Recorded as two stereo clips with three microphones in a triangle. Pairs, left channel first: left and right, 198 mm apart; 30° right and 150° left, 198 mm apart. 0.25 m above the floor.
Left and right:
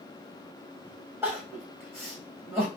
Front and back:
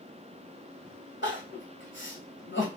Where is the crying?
10° right, 2.5 m.